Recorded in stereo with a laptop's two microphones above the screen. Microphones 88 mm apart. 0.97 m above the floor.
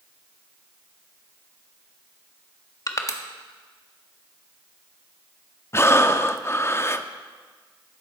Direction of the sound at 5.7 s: 30° left (ahead or behind).